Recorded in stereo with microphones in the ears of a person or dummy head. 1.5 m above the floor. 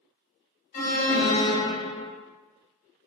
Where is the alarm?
45° left (ahead or behind), 1.9 m.